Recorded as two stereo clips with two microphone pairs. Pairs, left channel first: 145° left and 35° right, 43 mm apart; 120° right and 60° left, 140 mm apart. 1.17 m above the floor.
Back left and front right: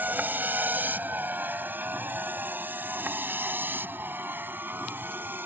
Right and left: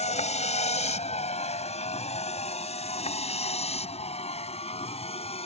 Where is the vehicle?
80° right; by 5.5 s 75° right.